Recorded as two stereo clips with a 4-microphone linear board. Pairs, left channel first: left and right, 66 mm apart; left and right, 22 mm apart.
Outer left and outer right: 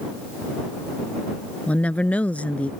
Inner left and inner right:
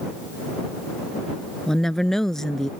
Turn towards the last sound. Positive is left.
turn(degrees=20)  # may be behind; listen again after turning